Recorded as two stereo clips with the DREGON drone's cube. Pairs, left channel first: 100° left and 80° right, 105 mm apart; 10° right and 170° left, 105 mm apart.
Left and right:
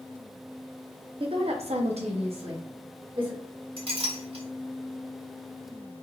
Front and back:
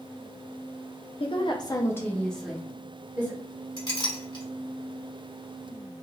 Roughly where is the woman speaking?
Ahead right.